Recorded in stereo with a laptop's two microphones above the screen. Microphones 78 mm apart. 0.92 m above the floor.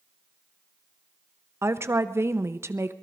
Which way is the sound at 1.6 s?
35° right (ahead or behind).